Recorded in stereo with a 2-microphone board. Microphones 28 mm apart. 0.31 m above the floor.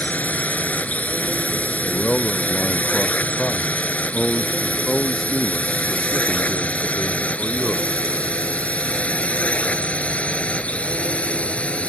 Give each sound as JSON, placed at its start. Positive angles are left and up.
{"t": 0.0, "sound": "a drone", "side_deg": 70}
{"t": 1.8, "sound": "a man speaking", "side_deg": 5}